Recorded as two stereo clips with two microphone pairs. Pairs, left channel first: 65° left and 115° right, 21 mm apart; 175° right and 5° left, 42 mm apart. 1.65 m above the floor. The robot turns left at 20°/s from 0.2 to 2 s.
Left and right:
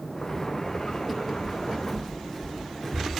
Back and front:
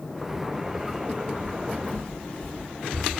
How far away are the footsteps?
About 3 m.